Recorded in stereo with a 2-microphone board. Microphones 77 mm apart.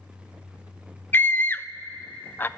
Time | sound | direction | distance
1.1 | a scream | 25° left (ahead or behind) | 0.6 m